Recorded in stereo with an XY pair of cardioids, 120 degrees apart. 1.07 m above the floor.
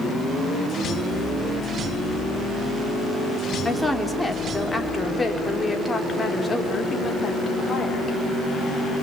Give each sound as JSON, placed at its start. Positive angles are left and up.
{"t": 3.6, "sound": "a woman speaking", "azimuth_deg": 0, "distance_m": 3.5}